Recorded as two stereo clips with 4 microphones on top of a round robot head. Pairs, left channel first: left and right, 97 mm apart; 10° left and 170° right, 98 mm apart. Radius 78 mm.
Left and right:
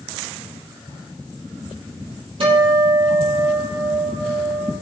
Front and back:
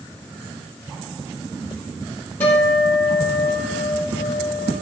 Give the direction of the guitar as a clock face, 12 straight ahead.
2 o'clock.